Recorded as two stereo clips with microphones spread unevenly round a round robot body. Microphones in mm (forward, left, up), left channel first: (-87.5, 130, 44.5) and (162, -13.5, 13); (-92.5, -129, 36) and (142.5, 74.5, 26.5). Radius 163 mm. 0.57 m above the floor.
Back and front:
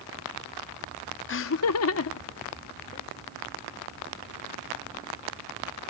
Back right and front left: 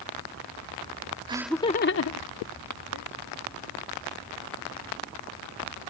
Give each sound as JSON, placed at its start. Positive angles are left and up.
{"t": 1.3, "sound": "laughter", "azimuth_deg": 110}